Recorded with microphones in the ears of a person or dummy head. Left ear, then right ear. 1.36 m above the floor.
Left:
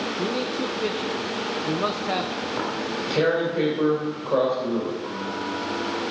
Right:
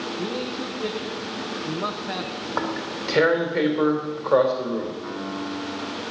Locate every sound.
0.2 s a man speaking: 15° left (ahead or behind), 1.3 m
2.4 s tearing paper: 65° right (ahead or behind), 3.5 m
5.0 s a piano: 75° right (ahead or behind), 4.5 m